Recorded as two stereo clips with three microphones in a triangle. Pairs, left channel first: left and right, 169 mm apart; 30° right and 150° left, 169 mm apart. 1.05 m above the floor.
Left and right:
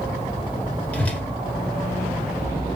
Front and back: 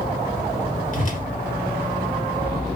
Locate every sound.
0.9 s a whoosh: 10° left, 1.3 m